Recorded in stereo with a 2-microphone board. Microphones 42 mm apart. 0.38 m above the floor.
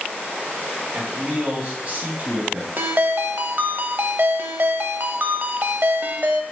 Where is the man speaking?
40° right (ahead or behind), 3 m.